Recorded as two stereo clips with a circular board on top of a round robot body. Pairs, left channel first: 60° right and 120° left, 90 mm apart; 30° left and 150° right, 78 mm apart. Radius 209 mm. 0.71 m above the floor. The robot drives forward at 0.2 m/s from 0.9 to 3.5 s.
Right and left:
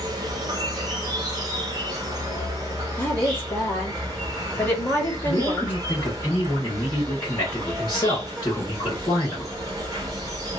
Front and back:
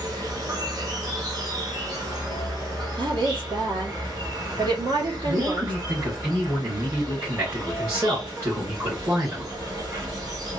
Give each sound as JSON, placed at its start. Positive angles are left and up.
{"t": 0.0, "sound": "an insect", "azimuth_deg": 165, "distance_m": 0.8}
{"t": 3.0, "sound": "a woman speaking", "azimuth_deg": -125, "distance_m": 1.5}
{"t": 5.2, "sound": "a man speaking", "azimuth_deg": -105, "distance_m": 2.0}